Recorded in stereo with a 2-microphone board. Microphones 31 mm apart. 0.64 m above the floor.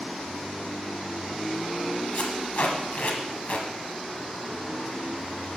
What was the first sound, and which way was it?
Tape being pulled, 50° left (ahead or behind).